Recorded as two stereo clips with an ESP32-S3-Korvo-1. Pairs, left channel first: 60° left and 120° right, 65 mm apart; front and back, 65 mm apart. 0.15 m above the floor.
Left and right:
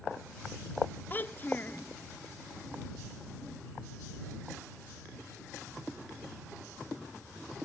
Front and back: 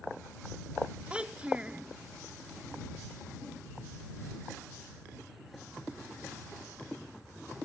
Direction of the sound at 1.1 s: 110° left.